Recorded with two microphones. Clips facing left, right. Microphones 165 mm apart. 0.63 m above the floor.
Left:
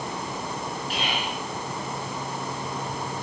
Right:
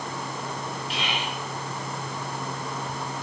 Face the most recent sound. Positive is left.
turn(degrees=45)  # may be behind; listen again after turning